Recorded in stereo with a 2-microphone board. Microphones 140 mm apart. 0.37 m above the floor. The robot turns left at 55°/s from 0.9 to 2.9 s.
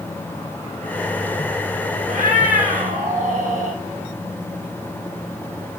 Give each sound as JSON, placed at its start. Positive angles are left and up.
{"t": 2.1, "sound": "a cat meowing", "azimuth_deg": -70, "distance_m": 3.5}